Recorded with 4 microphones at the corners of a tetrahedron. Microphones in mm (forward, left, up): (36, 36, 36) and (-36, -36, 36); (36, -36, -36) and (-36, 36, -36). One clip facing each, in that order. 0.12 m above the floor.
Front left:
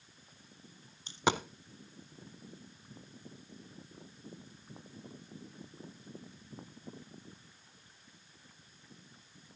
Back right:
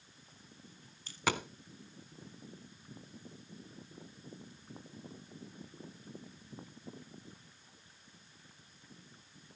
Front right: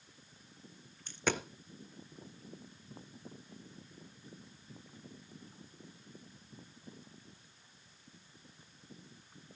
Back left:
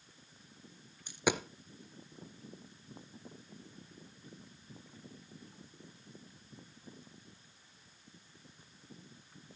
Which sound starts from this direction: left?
A dropped coin, at 1.1 s.